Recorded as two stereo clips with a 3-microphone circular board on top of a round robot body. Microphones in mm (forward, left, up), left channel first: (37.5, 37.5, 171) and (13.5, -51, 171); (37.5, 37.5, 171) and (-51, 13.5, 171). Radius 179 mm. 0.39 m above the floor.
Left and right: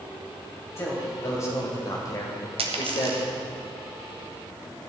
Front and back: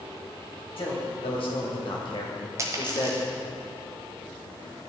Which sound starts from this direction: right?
A dropped coin, at 2.6 s.